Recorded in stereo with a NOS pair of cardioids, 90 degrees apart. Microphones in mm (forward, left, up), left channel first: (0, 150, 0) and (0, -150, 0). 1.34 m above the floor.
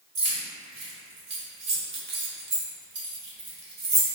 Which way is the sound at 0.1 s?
45° right.